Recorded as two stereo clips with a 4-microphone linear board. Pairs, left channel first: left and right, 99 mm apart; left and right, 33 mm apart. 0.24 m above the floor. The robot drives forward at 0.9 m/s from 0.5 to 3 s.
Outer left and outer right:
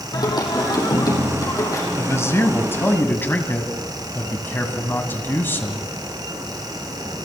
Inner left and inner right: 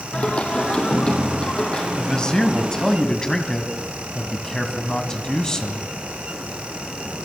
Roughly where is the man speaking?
Left.